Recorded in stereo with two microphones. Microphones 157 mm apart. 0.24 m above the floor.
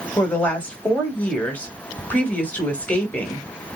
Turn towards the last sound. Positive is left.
turn(degrees=10)  # may be behind; listen again after turning